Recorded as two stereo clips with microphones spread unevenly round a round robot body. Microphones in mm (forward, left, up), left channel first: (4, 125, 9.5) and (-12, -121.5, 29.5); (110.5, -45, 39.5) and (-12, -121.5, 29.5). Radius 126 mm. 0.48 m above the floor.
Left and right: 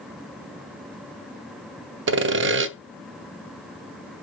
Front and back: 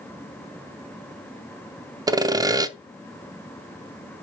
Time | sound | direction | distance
2.1 | sawing | 105° right | 0.8 m